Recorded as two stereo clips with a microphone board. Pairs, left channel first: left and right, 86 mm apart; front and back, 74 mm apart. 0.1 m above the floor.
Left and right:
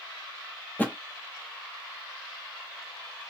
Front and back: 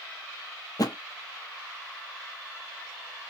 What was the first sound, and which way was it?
A thud, 25° left.